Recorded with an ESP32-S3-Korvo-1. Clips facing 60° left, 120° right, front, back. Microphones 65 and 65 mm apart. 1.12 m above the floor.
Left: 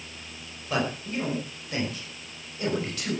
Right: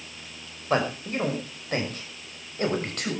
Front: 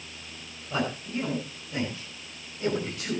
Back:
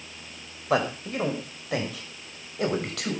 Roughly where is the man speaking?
Behind.